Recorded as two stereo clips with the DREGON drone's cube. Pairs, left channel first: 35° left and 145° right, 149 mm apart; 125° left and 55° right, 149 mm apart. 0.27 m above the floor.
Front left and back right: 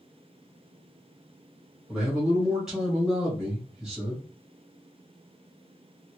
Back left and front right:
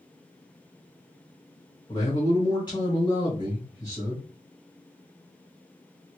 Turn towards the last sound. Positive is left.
turn(degrees=130)